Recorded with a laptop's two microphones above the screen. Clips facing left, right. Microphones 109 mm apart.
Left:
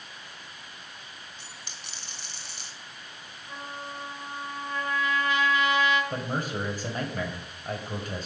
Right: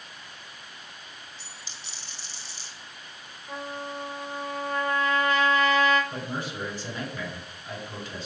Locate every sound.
1.4 s a dropped coin: 55° left (ahead or behind), 2.5 m
3.5 s a trumpet: 40° right (ahead or behind), 4.5 m
6.1 s a man speaking: 45° left (ahead or behind), 4.5 m